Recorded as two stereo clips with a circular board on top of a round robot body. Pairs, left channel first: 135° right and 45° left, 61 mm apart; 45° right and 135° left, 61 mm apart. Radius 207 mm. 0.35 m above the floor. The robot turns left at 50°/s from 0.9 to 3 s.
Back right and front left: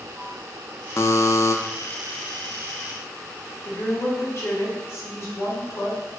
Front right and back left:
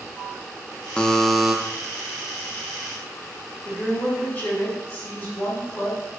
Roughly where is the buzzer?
Behind right.